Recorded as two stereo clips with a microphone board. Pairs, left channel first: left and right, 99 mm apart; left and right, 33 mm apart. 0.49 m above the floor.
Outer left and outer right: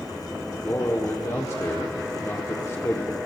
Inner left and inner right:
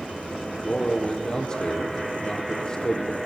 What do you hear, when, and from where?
0.6 s a man speaking: 30° left (ahead or behind), 1.2 m